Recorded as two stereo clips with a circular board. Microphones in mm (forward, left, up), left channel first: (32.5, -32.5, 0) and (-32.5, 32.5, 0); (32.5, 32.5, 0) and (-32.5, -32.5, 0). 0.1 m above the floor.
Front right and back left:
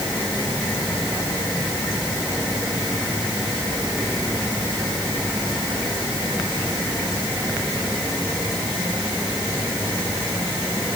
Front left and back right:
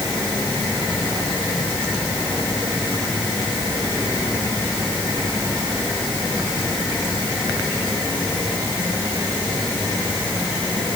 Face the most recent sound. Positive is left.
No sound to turn to.